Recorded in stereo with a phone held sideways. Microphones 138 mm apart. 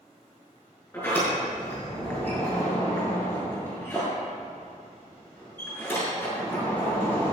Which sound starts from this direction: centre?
A sliding door, at 0.9 s.